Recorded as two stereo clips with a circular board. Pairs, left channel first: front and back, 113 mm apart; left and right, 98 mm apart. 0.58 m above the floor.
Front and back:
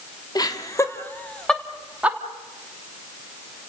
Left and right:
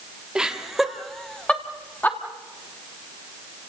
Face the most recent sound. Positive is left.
turn(degrees=125)